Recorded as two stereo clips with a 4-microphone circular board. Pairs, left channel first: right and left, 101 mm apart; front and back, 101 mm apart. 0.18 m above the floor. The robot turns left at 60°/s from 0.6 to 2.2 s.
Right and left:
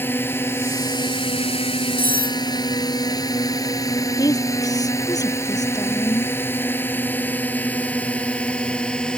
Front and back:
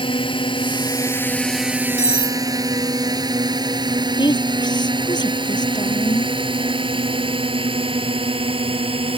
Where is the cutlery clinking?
110° right; by 2.4 s 125° right.